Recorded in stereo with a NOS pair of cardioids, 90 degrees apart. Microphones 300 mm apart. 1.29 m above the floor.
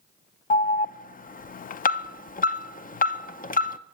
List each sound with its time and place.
0.5 s an alarm: 30° left, 0.5 m